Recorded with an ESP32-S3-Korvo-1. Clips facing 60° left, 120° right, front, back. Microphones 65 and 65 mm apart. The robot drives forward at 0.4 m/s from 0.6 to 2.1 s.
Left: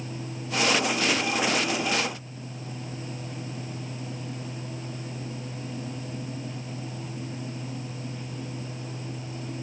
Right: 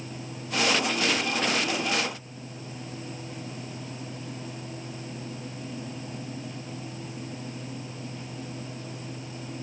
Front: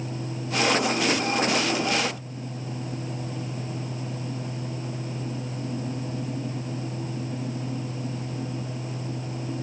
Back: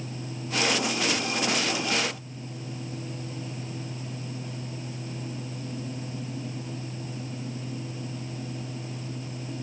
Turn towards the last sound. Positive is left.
No sound to turn to.